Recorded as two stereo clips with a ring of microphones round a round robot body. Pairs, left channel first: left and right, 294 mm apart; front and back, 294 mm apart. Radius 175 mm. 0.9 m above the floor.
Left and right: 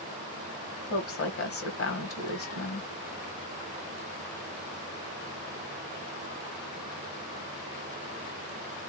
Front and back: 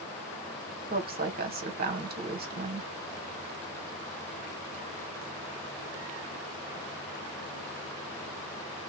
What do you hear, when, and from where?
0.9 s a woman speaking: 125° left, 1.5 m